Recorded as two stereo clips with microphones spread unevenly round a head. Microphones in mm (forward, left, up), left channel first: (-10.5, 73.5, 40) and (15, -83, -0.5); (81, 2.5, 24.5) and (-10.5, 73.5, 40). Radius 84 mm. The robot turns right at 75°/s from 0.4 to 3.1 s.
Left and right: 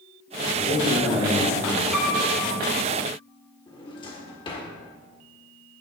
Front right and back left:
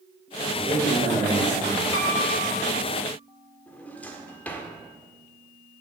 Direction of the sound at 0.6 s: 105° left.